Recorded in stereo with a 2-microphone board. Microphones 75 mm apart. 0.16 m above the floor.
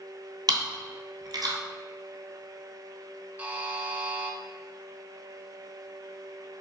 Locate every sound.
0.5 s chewing: 70° right (ahead or behind), 0.8 m
3.4 s a buzzer: 20° right (ahead or behind), 0.6 m